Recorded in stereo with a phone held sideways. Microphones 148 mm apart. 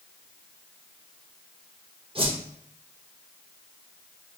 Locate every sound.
2.1 s a whoosh: 40° right (ahead or behind), 0.6 m